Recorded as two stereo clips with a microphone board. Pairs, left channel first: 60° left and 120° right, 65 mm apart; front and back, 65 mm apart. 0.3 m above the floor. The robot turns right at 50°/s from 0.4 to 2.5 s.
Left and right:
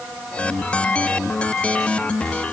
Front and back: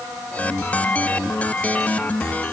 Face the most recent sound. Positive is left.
No sound to turn to.